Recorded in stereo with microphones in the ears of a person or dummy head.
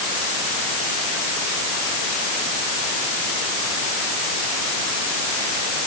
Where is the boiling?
I don't hear boiling.